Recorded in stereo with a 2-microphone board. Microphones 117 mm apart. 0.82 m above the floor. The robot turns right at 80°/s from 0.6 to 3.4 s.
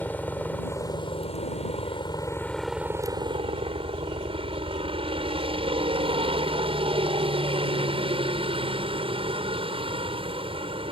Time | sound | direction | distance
0.0 | a helicopter | 15° left | ?